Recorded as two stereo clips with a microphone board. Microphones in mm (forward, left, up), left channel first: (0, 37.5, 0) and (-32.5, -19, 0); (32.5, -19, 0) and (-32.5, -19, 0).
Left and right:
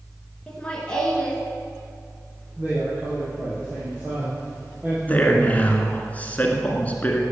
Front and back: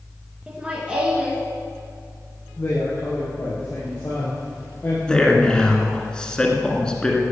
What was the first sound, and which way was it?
Laughter, 125° left.